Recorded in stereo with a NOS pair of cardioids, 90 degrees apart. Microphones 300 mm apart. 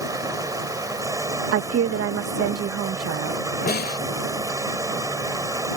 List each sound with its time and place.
0.0 s running water: 10° right
1.5 s a woman speaking: 50° right
3.7 s a snare drum: 30° left